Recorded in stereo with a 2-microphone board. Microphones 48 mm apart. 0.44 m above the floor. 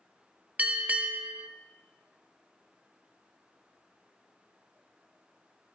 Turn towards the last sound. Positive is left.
turn(degrees=-35)  # may be behind; listen again after turning